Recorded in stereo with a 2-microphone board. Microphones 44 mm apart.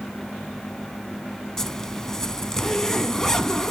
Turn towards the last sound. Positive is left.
turn(degrees=10)  # may be behind; listen again after turning